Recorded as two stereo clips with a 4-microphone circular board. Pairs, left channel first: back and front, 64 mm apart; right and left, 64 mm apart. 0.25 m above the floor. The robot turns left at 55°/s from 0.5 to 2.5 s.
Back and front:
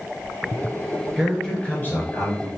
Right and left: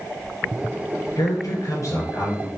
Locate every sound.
1.2 s a man speaking: 85° right, 3.5 m; by 2.5 s 160° right, 3.5 m